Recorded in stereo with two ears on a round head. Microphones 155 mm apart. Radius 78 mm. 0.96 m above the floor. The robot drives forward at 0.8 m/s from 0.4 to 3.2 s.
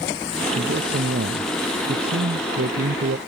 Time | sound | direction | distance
0.6 | a man speaking | 55° right (ahead or behind) | ?